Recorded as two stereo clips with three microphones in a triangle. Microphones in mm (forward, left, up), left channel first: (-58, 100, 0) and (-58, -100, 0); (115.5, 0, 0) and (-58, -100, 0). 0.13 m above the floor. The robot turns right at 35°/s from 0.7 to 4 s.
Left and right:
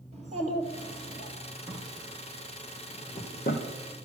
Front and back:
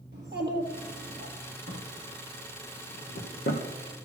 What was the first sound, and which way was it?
A child speaking, 140° right.